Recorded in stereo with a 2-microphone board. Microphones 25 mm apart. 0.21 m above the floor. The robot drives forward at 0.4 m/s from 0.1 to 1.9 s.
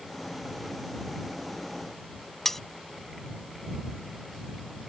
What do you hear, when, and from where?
2.5 s cutlery clinking: 15° left (ahead or behind)